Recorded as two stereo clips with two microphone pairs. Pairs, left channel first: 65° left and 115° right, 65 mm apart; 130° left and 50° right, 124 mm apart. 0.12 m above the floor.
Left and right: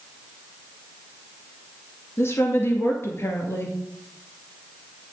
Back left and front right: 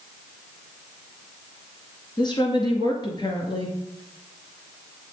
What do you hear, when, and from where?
2.2 s a woman speaking: 95° left, 2 m